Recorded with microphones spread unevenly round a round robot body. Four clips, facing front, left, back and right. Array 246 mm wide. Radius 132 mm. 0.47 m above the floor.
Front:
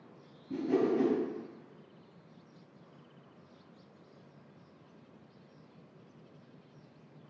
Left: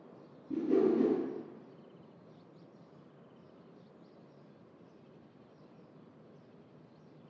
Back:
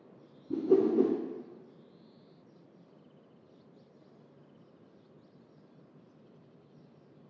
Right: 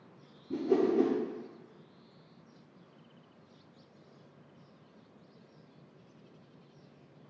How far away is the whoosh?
About 0.6 m.